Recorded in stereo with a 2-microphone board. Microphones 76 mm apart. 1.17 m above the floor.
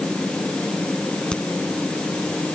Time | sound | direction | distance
1.3 | a crack | 15° left (ahead or behind) | ?